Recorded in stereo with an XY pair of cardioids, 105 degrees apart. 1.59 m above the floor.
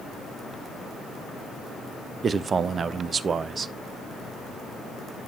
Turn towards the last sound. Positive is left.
turn(degrees=-40)